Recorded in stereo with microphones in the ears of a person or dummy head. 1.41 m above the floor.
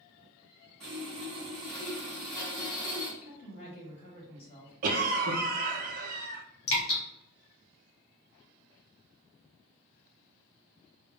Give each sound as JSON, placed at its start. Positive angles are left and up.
{"t": 0.8, "sound": "sawing", "side_deg": 0, "distance_m": 1.3}
{"t": 3.2, "sound": "a woman speaking", "side_deg": 30, "distance_m": 1.0}
{"t": 4.8, "sound": "a cough", "side_deg": -50, "distance_m": 0.5}
{"t": 6.7, "sound": "dripping", "side_deg": 75, "distance_m": 1.3}